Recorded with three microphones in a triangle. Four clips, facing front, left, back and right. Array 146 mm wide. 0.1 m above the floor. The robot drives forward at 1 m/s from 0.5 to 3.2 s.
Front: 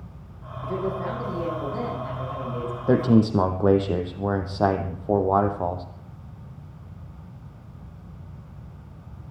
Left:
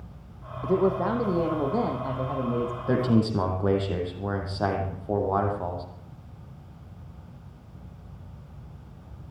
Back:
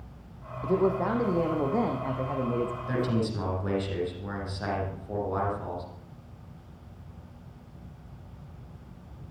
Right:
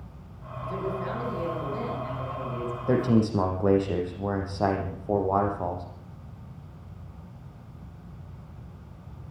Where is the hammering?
I don't hear hammering.